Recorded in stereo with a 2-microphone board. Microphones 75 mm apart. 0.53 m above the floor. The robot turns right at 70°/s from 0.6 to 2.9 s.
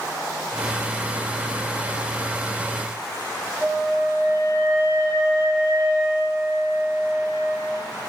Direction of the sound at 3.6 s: 35° right (ahead or behind).